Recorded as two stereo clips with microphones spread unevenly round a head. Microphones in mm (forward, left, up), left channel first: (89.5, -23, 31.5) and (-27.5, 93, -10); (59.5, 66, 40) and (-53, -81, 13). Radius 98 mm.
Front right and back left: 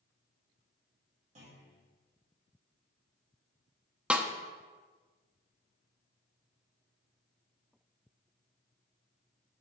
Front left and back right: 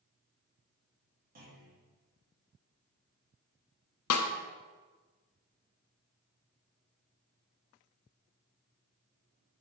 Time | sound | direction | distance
1.4 | a clunk | 170° right | 3.5 m
4.1 | a snare drum | 50° left | 0.8 m